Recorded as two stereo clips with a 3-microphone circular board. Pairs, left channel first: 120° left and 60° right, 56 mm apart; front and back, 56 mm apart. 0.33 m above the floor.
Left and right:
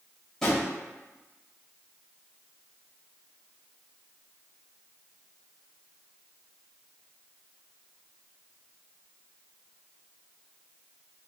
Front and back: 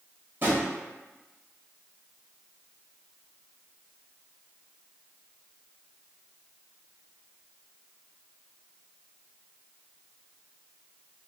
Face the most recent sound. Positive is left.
turn(degrees=-165)